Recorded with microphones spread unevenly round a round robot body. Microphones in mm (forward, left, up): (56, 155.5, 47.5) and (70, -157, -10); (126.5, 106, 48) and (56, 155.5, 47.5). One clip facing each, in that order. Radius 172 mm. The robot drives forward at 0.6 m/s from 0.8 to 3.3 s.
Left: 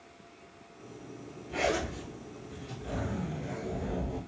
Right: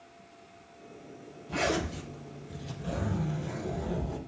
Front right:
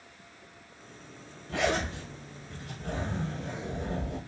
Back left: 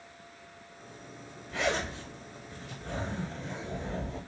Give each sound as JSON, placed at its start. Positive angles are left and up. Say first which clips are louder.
{"t": 1.5, "sound": "a zipper", "louder": "right 1 dB, front right 2 dB", "azimuth_deg": -65, "distance_m": 5.0}